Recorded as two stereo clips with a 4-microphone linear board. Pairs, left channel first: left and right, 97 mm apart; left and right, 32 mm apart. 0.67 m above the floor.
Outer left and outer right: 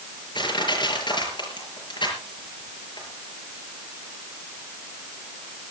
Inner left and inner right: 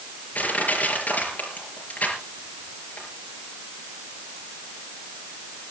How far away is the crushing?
About 5 m.